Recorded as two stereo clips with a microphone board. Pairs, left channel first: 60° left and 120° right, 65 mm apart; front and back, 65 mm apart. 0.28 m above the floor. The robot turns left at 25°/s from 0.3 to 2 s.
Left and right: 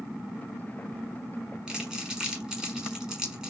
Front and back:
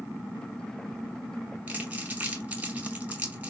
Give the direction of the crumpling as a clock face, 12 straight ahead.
6 o'clock.